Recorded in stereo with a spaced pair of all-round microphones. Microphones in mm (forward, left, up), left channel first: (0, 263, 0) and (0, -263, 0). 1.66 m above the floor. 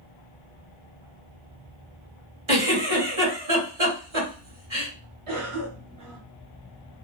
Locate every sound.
2.5 s a giggle: 60° right (ahead or behind), 1.7 m
5.3 s a cough: 75° right (ahead or behind), 0.9 m